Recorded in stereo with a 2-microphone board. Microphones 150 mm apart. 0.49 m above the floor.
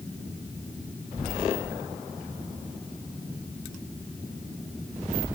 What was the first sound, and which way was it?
Only background noise.